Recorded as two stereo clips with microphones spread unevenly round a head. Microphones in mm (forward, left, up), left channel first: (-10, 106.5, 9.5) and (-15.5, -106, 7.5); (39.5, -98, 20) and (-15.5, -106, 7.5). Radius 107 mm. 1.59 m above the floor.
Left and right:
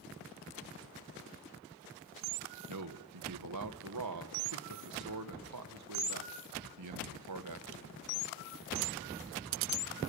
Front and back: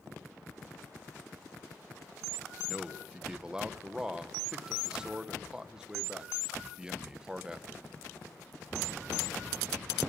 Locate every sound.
2.7 s a man speaking: 95° right, 1.7 m